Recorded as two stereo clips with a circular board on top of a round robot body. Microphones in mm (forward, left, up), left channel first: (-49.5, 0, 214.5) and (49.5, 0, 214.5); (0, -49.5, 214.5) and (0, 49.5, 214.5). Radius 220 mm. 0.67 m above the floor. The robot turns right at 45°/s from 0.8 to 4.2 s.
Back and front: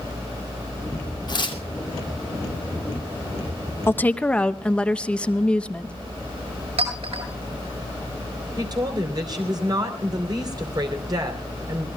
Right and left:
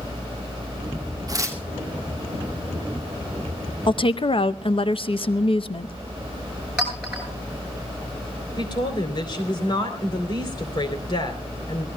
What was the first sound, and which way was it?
Tearing paper, 140° left.